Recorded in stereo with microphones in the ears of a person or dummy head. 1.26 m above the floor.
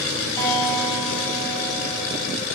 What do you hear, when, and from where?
0.4 s a guitar: 25° left (ahead or behind), 1.3 m